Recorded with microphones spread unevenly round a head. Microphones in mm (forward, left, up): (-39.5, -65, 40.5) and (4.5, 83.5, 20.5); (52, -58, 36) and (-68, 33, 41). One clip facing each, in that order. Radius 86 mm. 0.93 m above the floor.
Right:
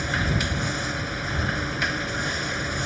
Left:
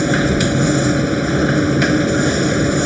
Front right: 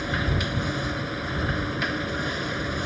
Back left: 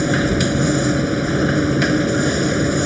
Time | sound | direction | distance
0.0 | a machine running | 100° left | ?